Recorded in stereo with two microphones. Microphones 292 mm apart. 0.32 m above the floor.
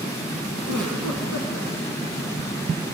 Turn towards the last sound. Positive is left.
turn(degrees=-70)  # may be behind; listen again after turning